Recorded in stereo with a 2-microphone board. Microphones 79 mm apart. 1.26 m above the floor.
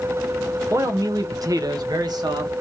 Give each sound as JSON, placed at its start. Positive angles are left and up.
{"t": 0.7, "sound": "a man speaking", "side_deg": -40, "distance_m": 0.7}